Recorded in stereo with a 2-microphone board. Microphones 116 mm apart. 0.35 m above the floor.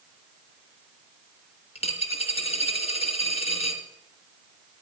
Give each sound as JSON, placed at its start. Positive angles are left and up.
{"t": 1.8, "sound": "a dropped coin", "side_deg": 60, "distance_m": 1.4}